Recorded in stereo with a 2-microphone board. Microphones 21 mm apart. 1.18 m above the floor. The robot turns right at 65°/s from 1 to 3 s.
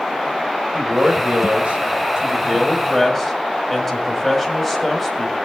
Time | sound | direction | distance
0.7 | a man speaking | 120° right | 5 m